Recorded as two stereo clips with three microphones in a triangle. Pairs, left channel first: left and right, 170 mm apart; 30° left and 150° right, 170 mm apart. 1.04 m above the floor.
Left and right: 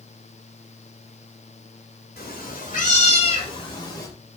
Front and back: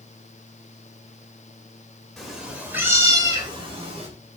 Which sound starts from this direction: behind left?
A cat meowing, at 2.2 s.